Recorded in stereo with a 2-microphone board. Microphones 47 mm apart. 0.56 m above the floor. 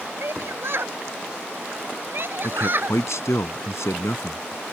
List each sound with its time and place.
0.2 s a shout: 60° right (ahead or behind); by 3.0 s 50° right (ahead or behind)
2.4 s a man speaking: 80° left